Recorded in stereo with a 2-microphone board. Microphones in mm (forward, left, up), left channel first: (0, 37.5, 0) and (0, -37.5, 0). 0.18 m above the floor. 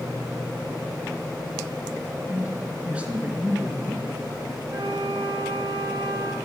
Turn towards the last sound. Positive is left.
turn(degrees=-80)